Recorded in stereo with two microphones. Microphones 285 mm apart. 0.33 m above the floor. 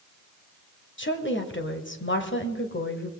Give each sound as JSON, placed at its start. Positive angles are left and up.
{"t": 1.0, "sound": "a woman speaking", "side_deg": 40, "distance_m": 1.5}